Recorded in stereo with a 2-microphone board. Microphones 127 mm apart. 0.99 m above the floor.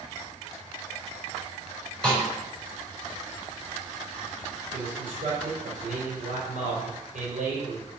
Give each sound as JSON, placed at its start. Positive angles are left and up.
{"t": 2.0, "sound": "a snare drum", "side_deg": 5, "distance_m": 4.0}
{"t": 4.7, "sound": "a man speaking", "side_deg": -75, "distance_m": 3.5}